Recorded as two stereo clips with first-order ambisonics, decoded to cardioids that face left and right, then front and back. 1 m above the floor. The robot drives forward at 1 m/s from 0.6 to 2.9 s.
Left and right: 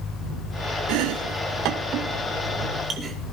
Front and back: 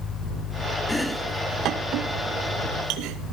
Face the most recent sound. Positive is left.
turn(degrees=-155)